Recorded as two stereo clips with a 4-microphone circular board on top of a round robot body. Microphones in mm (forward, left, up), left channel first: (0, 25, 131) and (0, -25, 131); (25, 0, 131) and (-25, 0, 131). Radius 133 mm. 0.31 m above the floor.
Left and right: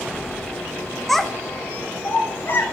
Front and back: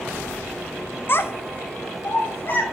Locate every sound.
1.1 s a child speaking: straight ahead, 0.6 m; by 2.6 s 40° left, 1.2 m